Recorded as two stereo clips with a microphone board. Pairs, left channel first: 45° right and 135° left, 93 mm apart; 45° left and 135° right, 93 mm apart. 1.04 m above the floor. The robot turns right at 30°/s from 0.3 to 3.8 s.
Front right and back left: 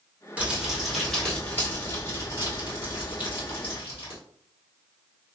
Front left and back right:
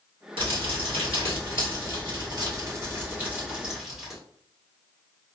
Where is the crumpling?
150° right, 1.3 m; by 4.2 s 45° right, 1.3 m.